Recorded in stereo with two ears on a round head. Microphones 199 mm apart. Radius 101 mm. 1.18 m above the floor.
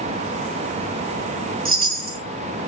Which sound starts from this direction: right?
A chime, at 1.6 s.